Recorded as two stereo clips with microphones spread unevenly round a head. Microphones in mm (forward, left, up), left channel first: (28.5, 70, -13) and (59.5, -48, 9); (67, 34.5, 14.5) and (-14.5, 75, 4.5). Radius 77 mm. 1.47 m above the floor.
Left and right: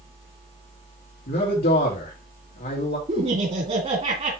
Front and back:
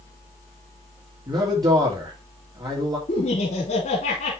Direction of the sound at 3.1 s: 40° right.